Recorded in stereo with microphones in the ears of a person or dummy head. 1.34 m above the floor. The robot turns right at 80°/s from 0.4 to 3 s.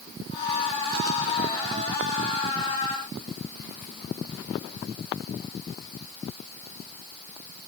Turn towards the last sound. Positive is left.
No sound to turn to.